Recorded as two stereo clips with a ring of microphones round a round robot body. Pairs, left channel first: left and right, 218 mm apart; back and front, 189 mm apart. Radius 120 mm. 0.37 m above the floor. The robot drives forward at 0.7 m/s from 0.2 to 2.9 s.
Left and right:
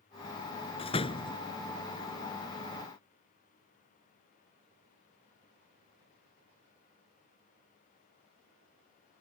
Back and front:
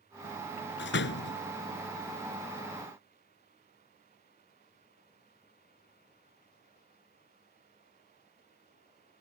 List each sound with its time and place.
0.8 s a door slam: 155° left; by 1.4 s 160° left